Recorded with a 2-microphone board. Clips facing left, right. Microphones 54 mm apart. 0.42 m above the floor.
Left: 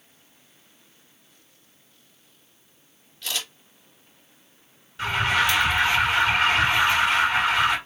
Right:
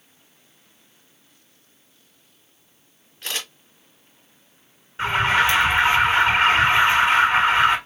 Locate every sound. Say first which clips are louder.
3.2 s a camera shutter: right 1 dB; 40° right (ahead or behind), 4 m
5.0 s an alarm: right 3 dB; 30° right (ahead or behind), 1.7 m